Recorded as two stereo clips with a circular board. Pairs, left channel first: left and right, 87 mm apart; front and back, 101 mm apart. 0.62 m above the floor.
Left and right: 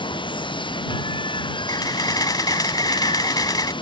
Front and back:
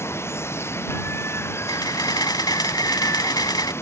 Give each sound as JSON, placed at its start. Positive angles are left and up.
{"t": 0.0, "sound": "running water", "azimuth_deg": 65}
{"t": 1.7, "sound": "a camera shutter", "azimuth_deg": 45}